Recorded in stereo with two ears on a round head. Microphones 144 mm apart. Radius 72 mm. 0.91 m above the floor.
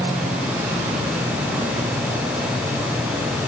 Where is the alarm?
I don't hear an alarm.